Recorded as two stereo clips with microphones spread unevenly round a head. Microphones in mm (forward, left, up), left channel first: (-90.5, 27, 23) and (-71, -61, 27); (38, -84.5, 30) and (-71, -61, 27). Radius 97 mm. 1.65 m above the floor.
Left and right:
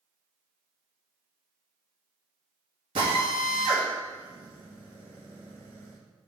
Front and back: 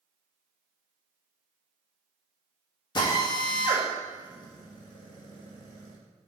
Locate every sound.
3.0 s a drill: 45° right, 1.5 m